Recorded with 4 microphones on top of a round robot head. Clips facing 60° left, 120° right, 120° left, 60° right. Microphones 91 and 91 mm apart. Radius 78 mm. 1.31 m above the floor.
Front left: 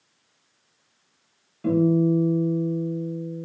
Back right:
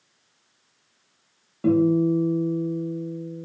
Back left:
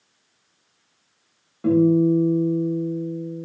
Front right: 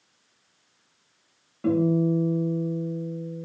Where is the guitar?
150° right, 0.8 m.